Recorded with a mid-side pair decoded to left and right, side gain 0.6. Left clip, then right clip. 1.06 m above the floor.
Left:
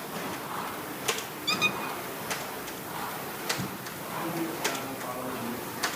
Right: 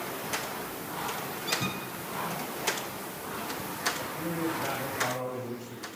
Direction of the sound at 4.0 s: 50° right.